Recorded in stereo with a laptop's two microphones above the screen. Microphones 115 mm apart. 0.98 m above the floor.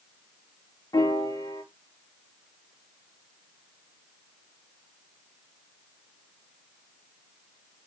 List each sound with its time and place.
0.9 s a piano: 35° left (ahead or behind), 0.7 m